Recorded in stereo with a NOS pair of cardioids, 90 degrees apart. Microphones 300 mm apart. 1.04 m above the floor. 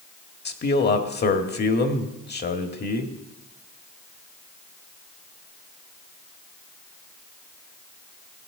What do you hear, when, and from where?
0.5 s a man speaking: 35° left, 1.8 m